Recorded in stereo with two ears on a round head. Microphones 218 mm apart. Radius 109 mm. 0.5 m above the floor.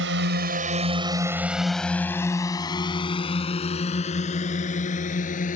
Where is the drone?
55° right (ahead or behind); by 5.6 s 35° left (ahead or behind).